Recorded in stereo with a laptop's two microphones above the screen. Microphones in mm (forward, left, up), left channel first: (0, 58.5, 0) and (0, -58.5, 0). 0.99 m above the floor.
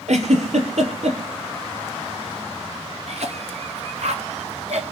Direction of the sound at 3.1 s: 65° right (ahead or behind).